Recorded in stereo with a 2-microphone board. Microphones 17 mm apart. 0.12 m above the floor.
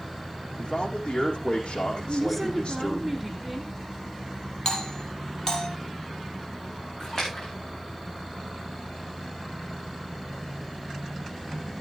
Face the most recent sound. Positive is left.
turn(degrees=30)  # may be behind; listen again after turning